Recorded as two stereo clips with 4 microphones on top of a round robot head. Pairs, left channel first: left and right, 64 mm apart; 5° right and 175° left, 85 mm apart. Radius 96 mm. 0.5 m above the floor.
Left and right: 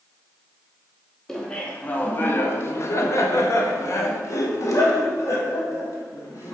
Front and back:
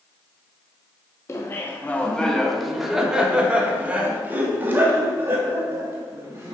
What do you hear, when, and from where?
1.3 s laughter: 15° left, 1.0 m; by 6.5 s 120° left, 3 m